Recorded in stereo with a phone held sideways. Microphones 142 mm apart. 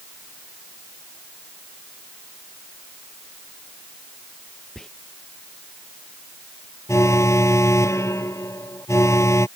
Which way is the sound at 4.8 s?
5° left (ahead or behind).